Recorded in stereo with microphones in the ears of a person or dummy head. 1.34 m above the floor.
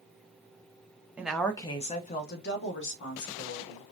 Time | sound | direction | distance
1.2 | a woman speaking | 10° right (ahead or behind) | 0.7 m